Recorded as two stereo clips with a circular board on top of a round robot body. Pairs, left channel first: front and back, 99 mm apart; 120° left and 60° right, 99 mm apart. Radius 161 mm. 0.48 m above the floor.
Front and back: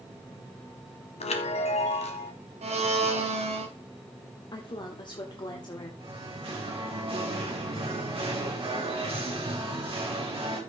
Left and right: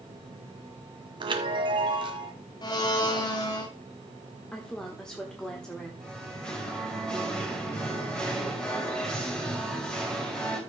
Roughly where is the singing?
Behind right.